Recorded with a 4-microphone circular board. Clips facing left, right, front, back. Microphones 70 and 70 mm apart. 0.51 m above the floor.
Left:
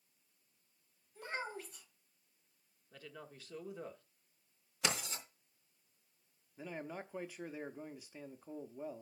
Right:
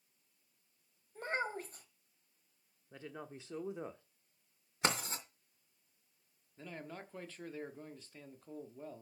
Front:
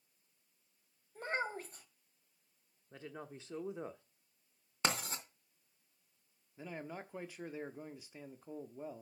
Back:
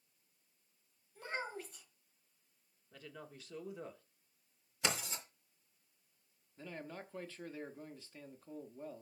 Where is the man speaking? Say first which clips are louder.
Left 3 dB, front 2 dB; 40° left, 0.8 m.